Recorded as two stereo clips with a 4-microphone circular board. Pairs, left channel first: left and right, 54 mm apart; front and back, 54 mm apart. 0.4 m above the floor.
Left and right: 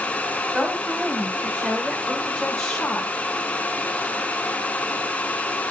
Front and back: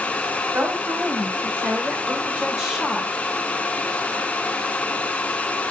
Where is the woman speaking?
165° right, 2 m; by 3.1 s 65° left, 1.0 m.